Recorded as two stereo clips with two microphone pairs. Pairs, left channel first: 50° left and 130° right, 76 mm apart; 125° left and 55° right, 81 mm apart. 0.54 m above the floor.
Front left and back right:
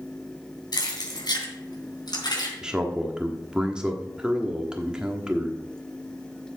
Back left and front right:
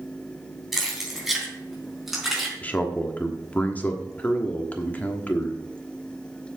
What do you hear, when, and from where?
0.7 s keys jangling: 35° left, 3.5 m
2.6 s a man speaking: 160° left, 1.2 m